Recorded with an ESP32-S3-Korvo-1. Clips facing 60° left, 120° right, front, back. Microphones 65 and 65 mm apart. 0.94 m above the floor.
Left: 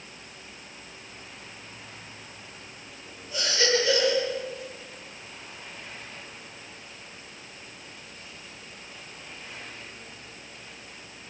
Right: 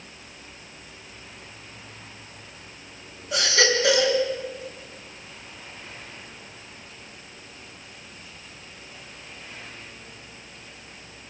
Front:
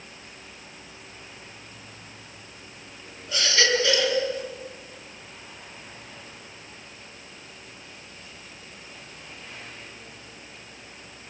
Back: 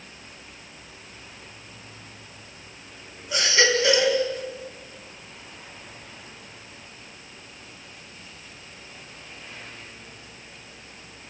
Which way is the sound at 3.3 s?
105° right.